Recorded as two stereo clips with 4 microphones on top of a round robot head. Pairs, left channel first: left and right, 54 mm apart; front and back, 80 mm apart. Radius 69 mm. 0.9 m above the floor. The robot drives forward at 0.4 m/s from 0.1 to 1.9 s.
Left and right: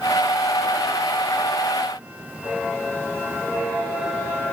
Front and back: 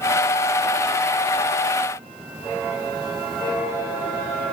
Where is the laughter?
No laughter in this recording.